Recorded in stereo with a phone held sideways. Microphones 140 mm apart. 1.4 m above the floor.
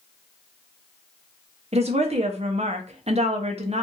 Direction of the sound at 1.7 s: 45° right (ahead or behind).